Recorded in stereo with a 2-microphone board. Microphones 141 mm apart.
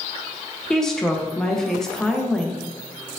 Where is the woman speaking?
5° left (ahead or behind), 0.7 m.